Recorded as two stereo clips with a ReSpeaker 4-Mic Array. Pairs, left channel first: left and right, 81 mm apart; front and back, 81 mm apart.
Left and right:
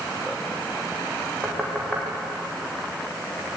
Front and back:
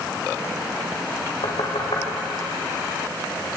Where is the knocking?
5° left, 7 m.